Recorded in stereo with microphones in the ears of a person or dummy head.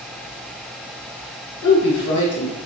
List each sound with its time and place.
1.6 s a woman speaking: 80° left, 0.9 m